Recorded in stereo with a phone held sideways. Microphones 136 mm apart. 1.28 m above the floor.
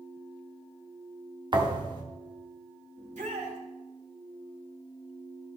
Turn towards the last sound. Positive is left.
turn(degrees=-80)